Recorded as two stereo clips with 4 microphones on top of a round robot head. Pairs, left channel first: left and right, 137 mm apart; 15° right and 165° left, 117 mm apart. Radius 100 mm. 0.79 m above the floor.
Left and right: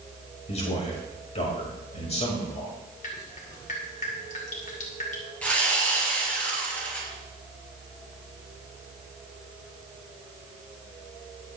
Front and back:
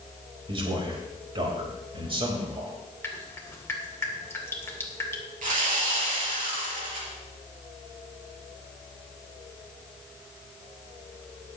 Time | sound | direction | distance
0.5 | a man speaking | 130° left | 4 m
3.0 | dripping | 55° left | 2.5 m
5.4 | sawing | 170° left | 4.5 m